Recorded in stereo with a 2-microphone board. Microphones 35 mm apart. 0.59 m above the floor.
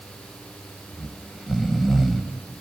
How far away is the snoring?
About 1.4 m.